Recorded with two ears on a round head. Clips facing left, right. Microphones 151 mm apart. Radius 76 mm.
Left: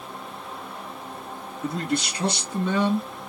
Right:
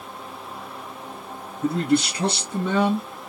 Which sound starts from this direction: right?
A man speaking, at 1.6 s.